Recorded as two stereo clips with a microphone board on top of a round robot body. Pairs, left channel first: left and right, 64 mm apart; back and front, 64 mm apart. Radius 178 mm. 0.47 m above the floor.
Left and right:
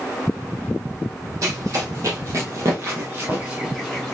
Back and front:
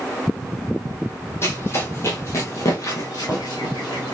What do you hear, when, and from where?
1.4 s running footsteps: 125° right, 1.5 m; by 4.2 s 160° left, 0.5 m